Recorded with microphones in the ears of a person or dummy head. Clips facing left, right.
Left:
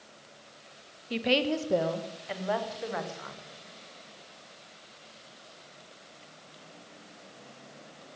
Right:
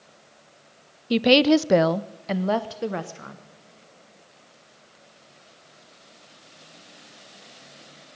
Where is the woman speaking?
55° right (ahead or behind), 0.6 m; by 3.4 s 35° right (ahead or behind), 1.2 m.